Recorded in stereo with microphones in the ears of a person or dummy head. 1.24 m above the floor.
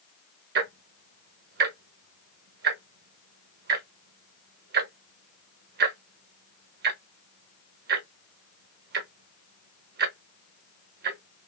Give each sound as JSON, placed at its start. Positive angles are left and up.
{"t": 0.6, "sound": "ticking", "side_deg": -60, "distance_m": 0.8}